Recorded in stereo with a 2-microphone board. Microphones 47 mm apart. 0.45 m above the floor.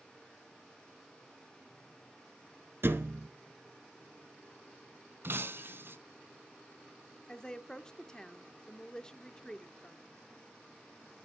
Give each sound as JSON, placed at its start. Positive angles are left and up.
{"t": 2.8, "sound": "a thud", "side_deg": -50, "distance_m": 1.3}
{"t": 5.2, "sound": "breaking glass", "side_deg": -50, "distance_m": 1.5}
{"t": 7.3, "sound": "a woman speaking", "side_deg": 15, "distance_m": 0.7}